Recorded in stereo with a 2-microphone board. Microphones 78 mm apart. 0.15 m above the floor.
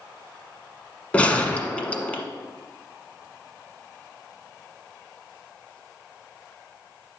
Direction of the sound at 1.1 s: 15° left (ahead or behind).